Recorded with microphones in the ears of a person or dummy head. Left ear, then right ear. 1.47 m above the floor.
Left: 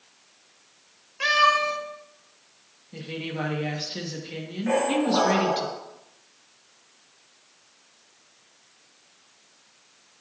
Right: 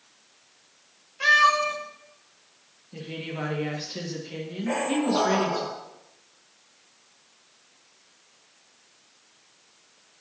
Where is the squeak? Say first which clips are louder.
Left 3 dB; 35° left (ahead or behind), 5.5 m.